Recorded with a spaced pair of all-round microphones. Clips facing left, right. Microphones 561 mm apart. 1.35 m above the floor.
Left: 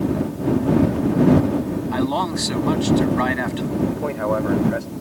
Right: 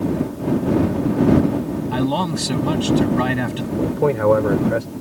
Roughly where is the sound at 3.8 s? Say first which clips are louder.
Right 8 dB; right.